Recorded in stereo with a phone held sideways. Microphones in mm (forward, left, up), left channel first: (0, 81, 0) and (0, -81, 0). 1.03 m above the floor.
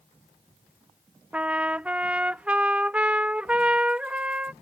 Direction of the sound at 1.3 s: 10° right (ahead or behind).